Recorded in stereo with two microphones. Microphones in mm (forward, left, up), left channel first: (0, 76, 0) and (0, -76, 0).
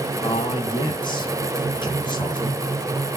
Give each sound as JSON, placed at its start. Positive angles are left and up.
{"t": 0.2, "sound": "a man speaking", "side_deg": 30, "distance_m": 1.8}